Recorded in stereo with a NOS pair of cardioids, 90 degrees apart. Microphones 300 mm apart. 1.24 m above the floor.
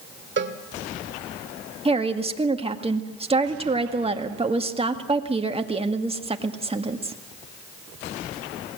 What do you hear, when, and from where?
0.4 s a cowbell: 40° right, 1.9 m
1.9 s a woman speaking: 20° right, 1.9 m